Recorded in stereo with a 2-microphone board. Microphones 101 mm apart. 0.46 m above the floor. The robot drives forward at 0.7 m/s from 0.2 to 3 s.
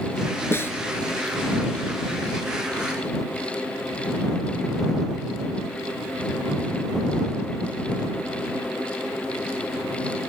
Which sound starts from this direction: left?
A snare drum, at 0.5 s.